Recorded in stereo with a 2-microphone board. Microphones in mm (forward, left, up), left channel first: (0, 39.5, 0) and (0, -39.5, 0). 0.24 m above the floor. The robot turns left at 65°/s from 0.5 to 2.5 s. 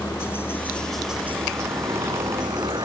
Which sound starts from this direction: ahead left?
A helicopter, at 0.0 s.